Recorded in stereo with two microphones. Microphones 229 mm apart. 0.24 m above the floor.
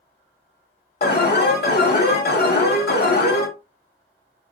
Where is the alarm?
45° left (ahead or behind), 0.8 m.